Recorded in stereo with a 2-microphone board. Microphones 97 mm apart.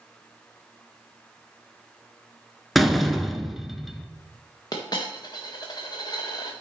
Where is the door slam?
Centre (ahead or behind), 0.8 m.